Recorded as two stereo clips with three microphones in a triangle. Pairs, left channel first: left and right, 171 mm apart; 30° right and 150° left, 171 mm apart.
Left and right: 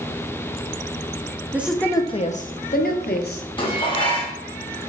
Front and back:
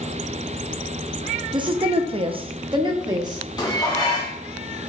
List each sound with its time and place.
1.5 s a woman speaking: 160° right, 0.5 m; by 3.4 s 85° left, 1.2 m
3.6 s dishes clattering: 30° left, 1.1 m